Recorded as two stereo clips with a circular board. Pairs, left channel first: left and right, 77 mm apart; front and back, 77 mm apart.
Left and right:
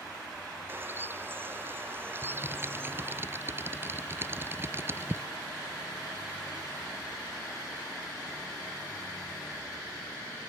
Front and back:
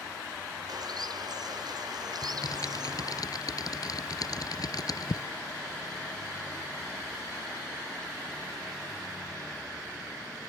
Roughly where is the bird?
Behind right.